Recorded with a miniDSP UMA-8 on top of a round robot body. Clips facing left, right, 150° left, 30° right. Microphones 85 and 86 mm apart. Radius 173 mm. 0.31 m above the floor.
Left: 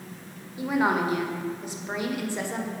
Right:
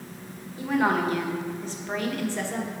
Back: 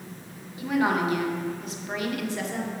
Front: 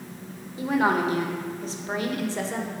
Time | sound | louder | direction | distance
0.6 | a woman speaking | even, front 2 dB | 20° left | 1.8 m